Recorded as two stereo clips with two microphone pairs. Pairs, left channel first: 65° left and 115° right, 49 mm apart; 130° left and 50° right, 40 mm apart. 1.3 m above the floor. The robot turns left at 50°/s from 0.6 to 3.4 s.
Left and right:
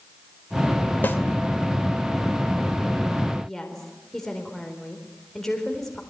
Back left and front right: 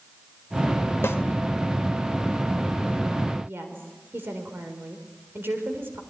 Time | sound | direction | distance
1.0 | a snare drum | 115° left | 2.5 m
3.4 | a woman speaking | 20° right | 4 m